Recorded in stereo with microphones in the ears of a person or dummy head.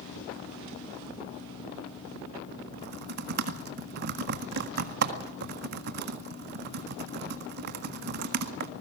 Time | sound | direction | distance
2.7 | typing on a keyboard | 55° right (ahead or behind) | 1.5 m